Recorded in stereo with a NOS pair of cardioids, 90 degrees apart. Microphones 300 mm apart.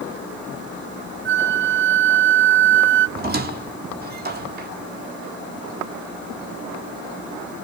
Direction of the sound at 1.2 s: 40° right.